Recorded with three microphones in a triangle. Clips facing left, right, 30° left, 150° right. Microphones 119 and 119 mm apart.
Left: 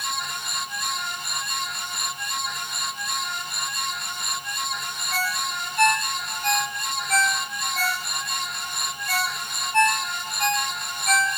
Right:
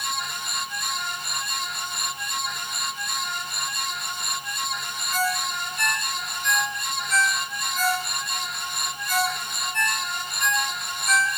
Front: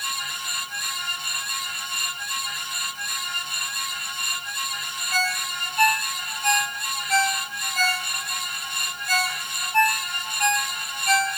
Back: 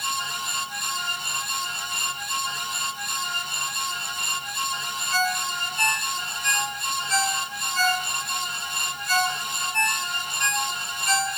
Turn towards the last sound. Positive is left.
turn(degrees=65)